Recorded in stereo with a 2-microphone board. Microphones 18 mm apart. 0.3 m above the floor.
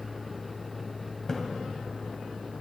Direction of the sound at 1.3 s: 30° left (ahead or behind).